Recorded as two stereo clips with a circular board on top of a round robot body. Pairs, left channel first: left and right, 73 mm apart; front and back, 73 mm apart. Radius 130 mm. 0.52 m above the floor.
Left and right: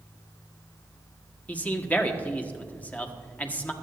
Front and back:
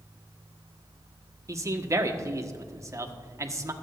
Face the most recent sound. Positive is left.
turn(degrees=155)